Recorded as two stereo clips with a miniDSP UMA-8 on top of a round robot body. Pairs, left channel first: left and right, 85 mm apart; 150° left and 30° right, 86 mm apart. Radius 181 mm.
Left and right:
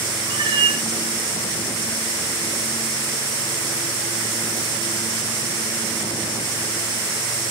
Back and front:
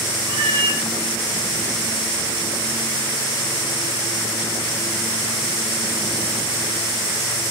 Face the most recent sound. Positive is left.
turn(degrees=-55)